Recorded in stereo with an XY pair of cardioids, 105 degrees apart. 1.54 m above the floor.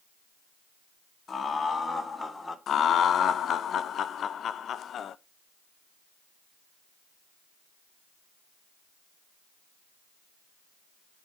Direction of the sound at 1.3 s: 35° left.